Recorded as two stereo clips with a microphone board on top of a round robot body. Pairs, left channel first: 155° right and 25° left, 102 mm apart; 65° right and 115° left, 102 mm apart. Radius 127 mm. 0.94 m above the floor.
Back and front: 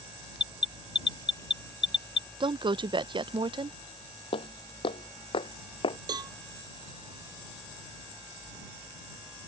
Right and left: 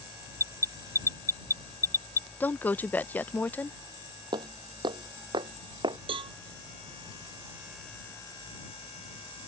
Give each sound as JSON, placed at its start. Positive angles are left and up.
{"t": 0.4, "sound": "an alarm", "azimuth_deg": -125}
{"t": 2.4, "sound": "a woman speaking", "azimuth_deg": 0}
{"t": 4.3, "sound": "footsteps", "azimuth_deg": 165}
{"t": 6.1, "sound": "a cowbell", "azimuth_deg": 75}